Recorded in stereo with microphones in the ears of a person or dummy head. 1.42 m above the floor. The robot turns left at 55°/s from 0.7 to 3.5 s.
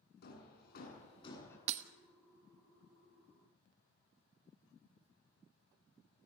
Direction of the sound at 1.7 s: 40° right (ahead or behind).